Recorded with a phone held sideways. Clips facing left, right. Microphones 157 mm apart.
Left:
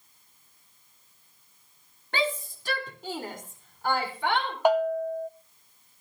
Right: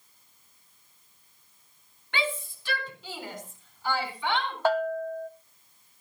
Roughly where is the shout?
Left.